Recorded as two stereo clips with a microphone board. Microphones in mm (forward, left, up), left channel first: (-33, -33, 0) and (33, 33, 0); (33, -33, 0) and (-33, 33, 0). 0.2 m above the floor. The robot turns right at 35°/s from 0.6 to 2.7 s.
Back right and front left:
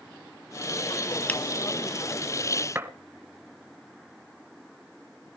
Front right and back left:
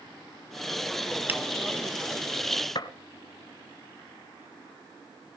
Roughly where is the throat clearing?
No throat clearing in this recording.